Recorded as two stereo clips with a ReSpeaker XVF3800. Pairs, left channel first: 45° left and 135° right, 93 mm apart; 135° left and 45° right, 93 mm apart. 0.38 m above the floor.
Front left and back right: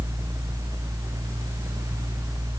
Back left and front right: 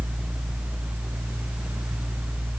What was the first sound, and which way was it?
Only background noise.